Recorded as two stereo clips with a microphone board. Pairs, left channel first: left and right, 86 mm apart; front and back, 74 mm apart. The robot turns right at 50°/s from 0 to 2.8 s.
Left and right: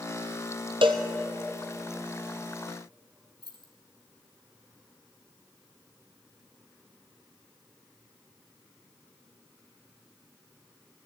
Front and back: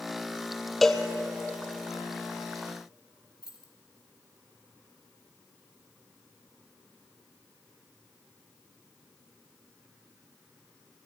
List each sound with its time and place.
0.8 s a cowbell: 90° right, 0.9 m; by 1.0 s 80° right, 0.9 m
3.4 s keys jangling: 105° right, 2 m